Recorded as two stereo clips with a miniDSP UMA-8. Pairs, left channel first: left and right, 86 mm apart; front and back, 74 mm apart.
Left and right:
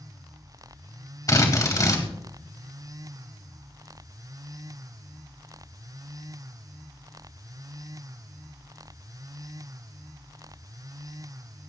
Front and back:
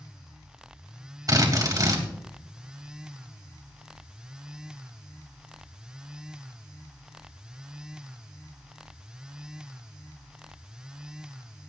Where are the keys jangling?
No keys jangling in this recording.